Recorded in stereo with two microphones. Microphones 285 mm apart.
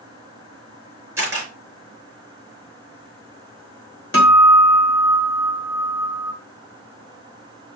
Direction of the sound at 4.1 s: 45° left (ahead or behind).